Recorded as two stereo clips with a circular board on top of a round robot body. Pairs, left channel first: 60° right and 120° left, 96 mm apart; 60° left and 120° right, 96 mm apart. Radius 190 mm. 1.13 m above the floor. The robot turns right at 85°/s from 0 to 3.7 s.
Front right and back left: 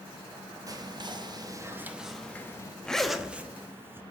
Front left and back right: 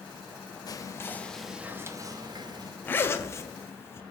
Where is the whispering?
85° left, 0.6 m; by 2.8 s 95° right, 0.6 m.